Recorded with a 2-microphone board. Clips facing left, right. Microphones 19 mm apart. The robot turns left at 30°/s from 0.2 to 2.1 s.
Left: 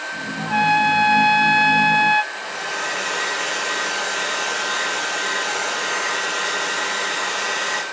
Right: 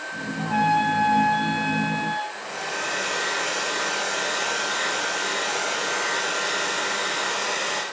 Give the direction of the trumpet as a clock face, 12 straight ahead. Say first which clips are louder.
Left 4 dB; 7 o'clock.